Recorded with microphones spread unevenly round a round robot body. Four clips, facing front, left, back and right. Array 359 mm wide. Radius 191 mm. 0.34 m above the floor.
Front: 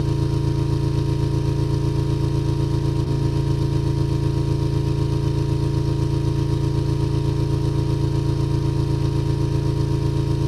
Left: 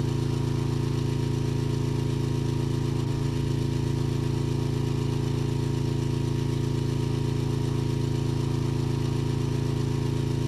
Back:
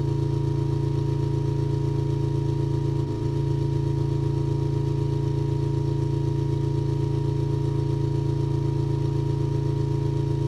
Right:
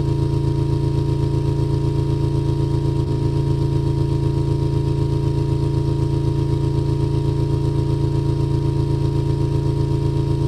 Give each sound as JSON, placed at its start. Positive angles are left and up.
{"t": 0.0, "sound": "an engine running", "azimuth_deg": -50, "distance_m": 1.0}